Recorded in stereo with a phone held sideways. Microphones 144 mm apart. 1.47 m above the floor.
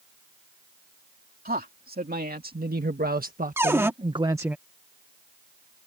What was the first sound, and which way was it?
A man speaking, 80° right.